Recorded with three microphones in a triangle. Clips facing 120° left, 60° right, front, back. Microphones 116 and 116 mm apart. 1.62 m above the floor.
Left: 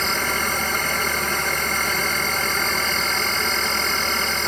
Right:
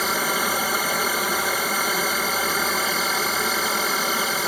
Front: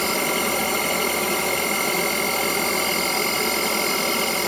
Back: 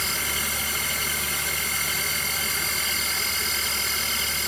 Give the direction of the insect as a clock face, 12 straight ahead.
11 o'clock.